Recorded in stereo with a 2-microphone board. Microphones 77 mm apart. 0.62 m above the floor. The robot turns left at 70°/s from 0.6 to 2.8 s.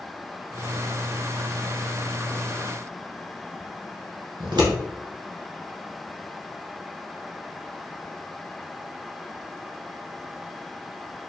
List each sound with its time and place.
4.4 s scissors: 75° right (ahead or behind), 1.3 m